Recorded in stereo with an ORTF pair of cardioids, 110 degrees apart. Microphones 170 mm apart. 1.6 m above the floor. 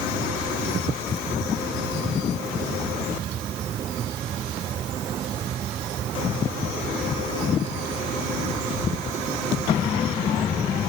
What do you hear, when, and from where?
Only background noise.